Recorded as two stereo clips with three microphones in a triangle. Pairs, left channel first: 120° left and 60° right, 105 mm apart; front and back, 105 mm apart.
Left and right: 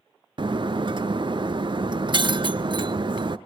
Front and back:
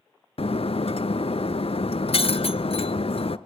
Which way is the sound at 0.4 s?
20° right.